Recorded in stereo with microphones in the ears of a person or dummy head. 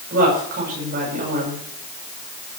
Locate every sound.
0.1 s a woman speaking: 50° right (ahead or behind), 7.5 m